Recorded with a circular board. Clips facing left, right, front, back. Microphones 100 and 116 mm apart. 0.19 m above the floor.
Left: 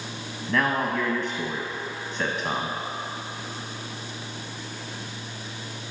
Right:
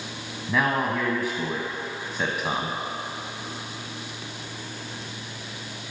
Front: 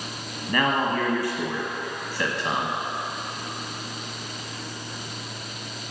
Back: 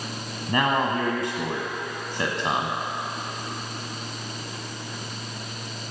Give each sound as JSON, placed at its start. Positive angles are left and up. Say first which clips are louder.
{"t": 0.5, "sound": "a man speaking", "louder": "even, even", "azimuth_deg": -165, "distance_m": 1.0}